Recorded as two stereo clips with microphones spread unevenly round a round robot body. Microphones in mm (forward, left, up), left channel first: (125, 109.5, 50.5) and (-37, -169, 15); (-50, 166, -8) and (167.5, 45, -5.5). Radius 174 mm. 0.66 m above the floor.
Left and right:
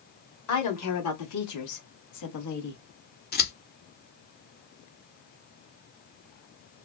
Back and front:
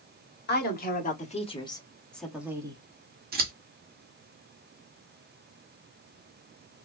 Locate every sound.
0.5 s a woman speaking: 105° left, 1.7 m; by 2.8 s 40° left, 1.2 m
3.3 s scissors: 5° left, 1.2 m